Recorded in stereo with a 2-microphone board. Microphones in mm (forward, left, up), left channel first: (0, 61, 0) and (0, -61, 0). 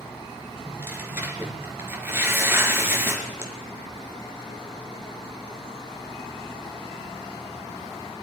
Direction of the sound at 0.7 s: 20° right (ahead or behind).